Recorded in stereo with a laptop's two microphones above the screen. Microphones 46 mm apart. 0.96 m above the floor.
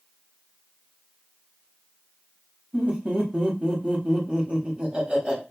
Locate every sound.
2.7 s laughter: 30° right (ahead or behind), 1.0 m